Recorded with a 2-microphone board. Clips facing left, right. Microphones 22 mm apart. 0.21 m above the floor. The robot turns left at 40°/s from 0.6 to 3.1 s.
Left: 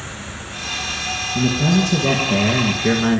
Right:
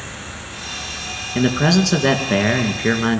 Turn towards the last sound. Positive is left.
turn(degrees=-170)